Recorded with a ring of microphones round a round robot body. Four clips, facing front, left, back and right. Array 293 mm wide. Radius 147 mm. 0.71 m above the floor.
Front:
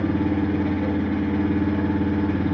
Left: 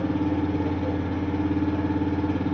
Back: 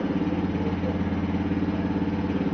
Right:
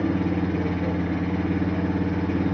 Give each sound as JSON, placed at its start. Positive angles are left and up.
{"t": 0.0, "sound": "an engine running", "azimuth_deg": -20, "distance_m": 3.0}